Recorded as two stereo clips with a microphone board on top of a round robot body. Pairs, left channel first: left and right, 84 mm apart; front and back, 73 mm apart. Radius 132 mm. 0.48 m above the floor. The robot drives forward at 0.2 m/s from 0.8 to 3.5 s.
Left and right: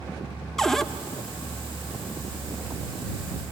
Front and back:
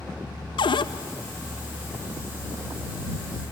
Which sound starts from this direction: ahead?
A cupboard door, at 0.6 s.